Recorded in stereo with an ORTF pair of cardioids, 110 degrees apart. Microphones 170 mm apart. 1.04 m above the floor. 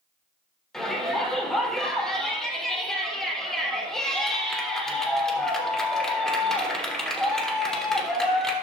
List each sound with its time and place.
0.7 s a shout: 5° left, 3 m